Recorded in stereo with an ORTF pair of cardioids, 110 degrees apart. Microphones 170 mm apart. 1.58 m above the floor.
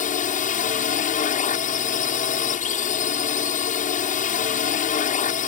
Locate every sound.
0.0 s a drone: 50° left